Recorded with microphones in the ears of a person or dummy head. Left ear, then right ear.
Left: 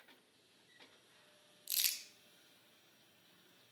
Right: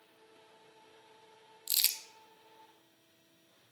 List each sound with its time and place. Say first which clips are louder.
1.7 s crumpling: right 6 dB; 15° right (ahead or behind), 0.6 m